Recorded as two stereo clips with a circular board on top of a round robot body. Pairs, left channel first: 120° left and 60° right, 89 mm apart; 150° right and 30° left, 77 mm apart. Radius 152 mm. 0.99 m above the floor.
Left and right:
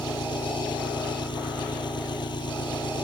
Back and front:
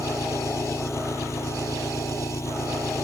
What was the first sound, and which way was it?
An engine running, 155° left.